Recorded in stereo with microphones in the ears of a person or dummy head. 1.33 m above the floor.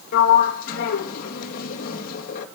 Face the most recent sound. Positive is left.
turn(degrees=50)  # may be behind; listen again after turning